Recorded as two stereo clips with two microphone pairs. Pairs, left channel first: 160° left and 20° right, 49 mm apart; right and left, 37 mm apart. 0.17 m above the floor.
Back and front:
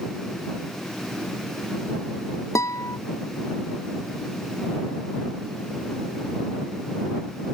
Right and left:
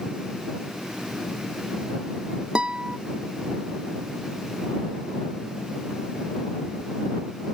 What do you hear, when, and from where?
2.5 s a guitar: 155° left